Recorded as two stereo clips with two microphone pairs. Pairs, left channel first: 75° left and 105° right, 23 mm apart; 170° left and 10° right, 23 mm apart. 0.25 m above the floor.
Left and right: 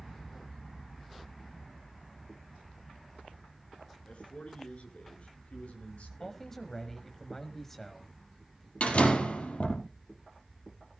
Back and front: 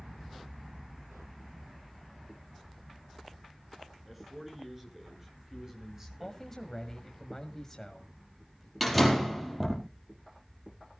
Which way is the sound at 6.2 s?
125° left.